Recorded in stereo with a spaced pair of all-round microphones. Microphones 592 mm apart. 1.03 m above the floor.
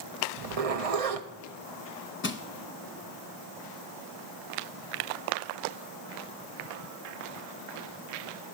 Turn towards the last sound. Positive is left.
turn(degrees=20)  # may be behind; listen again after turning